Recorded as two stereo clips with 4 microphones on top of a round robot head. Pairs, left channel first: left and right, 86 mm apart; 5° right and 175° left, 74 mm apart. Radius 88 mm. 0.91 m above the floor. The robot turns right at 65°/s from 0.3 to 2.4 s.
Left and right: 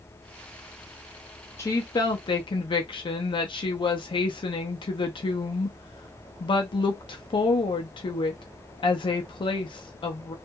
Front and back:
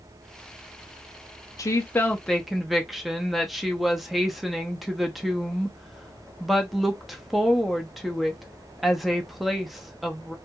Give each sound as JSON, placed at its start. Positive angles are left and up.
{"t": 1.6, "sound": "a woman speaking", "azimuth_deg": 35, "distance_m": 0.7}